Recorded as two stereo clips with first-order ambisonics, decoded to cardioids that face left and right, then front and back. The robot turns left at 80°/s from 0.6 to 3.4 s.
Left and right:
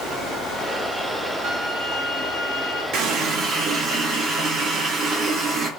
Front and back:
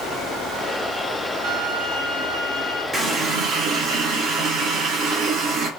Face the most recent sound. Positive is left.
turn(degrees=-145)